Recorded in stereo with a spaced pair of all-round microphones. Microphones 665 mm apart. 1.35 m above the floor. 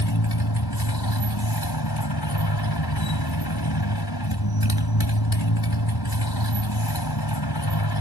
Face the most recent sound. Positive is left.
turn(degrees=35)  # may be behind; listen again after turning